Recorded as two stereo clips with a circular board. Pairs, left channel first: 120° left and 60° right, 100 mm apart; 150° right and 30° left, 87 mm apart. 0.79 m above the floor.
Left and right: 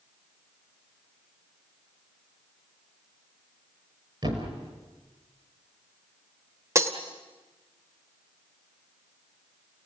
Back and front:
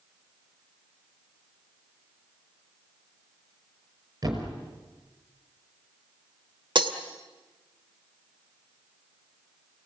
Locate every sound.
4.2 s a thud: 20° right, 5.5 m
6.8 s breaking glass: straight ahead, 1.5 m